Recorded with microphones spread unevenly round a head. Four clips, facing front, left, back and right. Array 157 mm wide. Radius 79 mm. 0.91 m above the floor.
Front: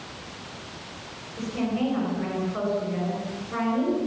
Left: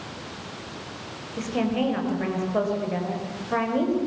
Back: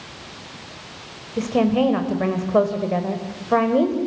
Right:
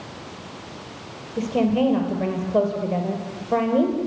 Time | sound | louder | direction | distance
1.4 | a woman speaking | right 5 dB, back 9 dB | 150° right | 4 m